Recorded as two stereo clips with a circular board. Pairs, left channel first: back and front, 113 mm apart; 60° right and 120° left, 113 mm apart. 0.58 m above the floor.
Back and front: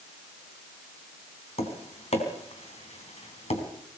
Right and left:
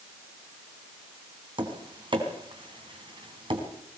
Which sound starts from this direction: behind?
Tapping, at 1.6 s.